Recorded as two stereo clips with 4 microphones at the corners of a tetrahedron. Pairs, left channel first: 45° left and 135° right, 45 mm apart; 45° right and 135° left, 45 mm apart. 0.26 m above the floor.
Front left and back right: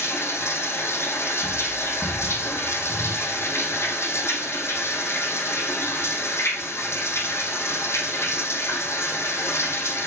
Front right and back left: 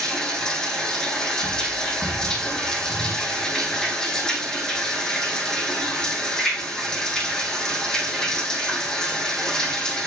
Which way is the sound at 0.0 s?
30° left.